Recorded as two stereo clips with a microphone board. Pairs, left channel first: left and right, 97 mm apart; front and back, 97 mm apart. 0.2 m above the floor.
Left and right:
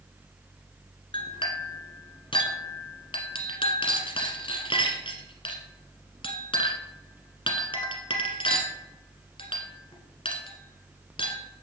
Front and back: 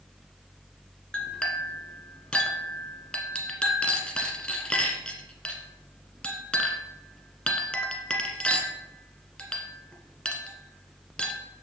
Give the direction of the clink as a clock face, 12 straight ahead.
9 o'clock.